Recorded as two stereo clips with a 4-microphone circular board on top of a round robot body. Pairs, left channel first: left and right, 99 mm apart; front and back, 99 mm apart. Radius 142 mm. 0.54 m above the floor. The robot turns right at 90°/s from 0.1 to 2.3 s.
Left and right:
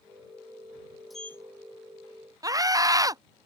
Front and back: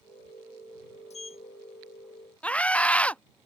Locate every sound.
1.1 s a sliding door: straight ahead; by 1.4 s 30° left
2.4 s a scream: 70° right